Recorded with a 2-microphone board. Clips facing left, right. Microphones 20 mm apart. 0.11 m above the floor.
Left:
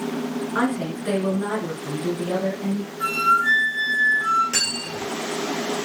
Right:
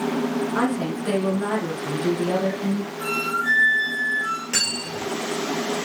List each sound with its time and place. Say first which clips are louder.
0.6 s a woman speaking: even; 20° left (ahead or behind), 1.2 m; by 2.9 s 45° right (ahead or behind), 1.7 m
3.0 s a flute: left 7 dB; 20° left (ahead or behind), 1.2 m
4.5 s cutlery clinking: even; 45° right (ahead or behind), 1.5 m